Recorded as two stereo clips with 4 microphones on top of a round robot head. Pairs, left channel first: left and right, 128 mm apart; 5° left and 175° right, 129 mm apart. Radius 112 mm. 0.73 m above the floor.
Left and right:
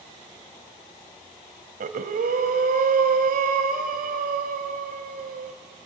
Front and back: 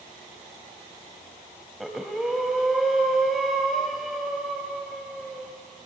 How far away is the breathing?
About 1.0 m.